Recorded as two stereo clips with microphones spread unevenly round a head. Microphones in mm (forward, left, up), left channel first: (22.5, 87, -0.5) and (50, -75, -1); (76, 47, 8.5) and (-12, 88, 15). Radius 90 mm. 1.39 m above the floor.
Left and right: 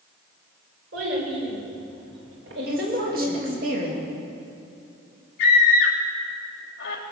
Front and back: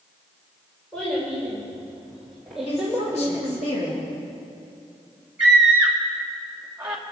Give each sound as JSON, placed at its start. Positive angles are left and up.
{"t": 0.9, "sound": "a child speaking", "azimuth_deg": -110, "distance_m": 4.0}
{"t": 2.7, "sound": "a woman speaking", "azimuth_deg": -50, "distance_m": 2.5}
{"t": 5.4, "sound": "a scream", "azimuth_deg": 80, "distance_m": 1.3}